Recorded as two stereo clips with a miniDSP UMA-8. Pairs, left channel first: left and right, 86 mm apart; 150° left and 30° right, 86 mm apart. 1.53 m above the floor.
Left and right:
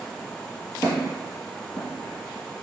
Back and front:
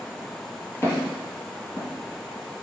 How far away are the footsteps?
About 1.7 m.